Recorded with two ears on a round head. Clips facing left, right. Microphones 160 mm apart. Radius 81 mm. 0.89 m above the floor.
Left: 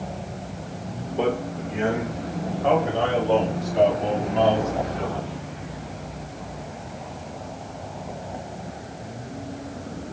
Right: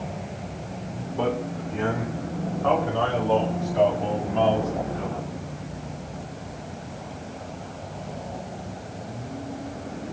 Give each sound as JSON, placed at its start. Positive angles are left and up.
{"t": 1.2, "sound": "a man speaking", "side_deg": 25, "distance_m": 3.5}